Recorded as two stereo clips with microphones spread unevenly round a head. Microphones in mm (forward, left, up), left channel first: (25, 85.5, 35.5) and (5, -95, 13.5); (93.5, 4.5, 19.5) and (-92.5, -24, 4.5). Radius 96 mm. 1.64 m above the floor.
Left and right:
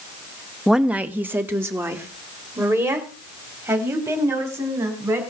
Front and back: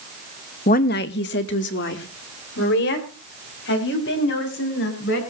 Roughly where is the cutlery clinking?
I don't hear cutlery clinking.